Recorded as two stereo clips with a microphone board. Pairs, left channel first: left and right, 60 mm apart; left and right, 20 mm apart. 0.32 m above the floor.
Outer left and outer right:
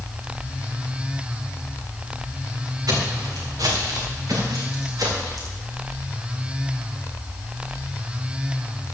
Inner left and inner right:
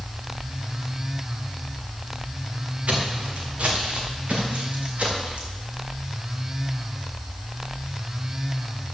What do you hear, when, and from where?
2.9 s footsteps: 75° right (ahead or behind), 3.5 m; by 5.5 s 80° right, 4.5 m